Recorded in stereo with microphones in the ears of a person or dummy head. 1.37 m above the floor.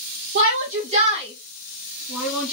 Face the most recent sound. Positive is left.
turn(degrees=-5)  # may be behind; listen again after turning